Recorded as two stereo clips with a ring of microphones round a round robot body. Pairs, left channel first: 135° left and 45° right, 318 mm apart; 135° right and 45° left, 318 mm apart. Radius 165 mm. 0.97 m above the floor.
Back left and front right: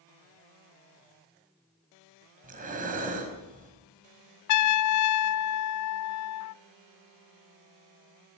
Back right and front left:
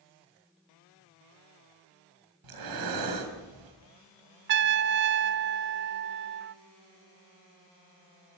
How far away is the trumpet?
About 0.5 m.